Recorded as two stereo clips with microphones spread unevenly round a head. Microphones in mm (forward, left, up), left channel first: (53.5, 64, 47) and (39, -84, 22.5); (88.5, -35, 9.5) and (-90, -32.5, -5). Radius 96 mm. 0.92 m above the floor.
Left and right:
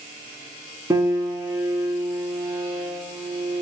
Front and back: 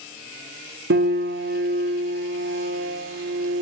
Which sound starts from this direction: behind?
A piano, at 0.9 s.